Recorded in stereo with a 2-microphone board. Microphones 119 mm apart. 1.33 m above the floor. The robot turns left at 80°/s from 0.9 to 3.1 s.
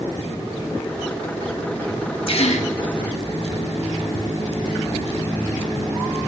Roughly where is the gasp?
Behind left.